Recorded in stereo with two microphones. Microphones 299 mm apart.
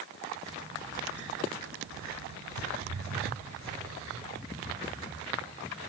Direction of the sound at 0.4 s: 10° right (ahead or behind).